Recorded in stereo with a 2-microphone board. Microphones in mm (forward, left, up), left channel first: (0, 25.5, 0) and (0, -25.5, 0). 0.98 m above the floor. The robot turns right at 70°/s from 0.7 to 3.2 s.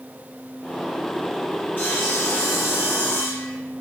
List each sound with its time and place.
1.8 s sawing: 30° left, 1.5 m; by 3.5 s 130° left, 1.5 m